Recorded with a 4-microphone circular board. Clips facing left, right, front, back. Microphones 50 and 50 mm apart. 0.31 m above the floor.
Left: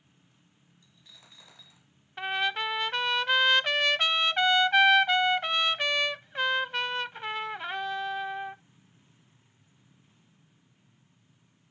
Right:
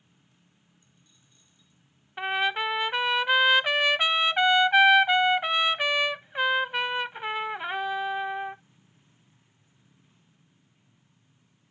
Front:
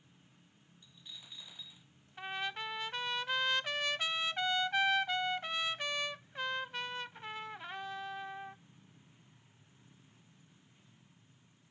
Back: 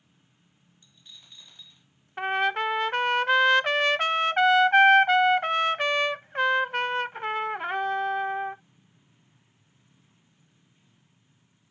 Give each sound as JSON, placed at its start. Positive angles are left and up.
{"t": 0.8, "sound": "a dropped coin", "azimuth_deg": 85}
{"t": 2.2, "sound": "a trumpet", "azimuth_deg": -165}